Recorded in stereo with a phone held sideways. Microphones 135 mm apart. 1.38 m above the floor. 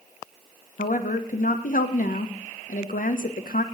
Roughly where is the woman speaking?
Left.